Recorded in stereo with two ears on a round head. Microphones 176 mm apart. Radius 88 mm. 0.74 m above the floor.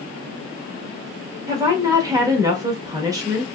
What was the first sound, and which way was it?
A woman speaking, 20° right (ahead or behind).